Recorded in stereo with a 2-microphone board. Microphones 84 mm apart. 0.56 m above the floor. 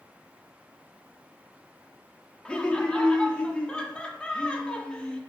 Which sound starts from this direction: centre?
Laughter, at 2.5 s.